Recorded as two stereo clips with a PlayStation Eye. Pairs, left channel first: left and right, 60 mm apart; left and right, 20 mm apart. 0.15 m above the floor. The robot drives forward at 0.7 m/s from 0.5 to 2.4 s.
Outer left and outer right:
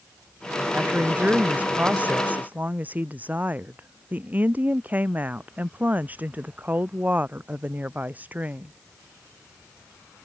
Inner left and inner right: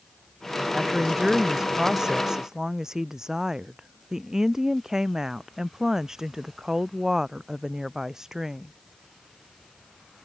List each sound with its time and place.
0.7 s a woman speaking: 25° right (ahead or behind); by 8.7 s 30° right (ahead or behind)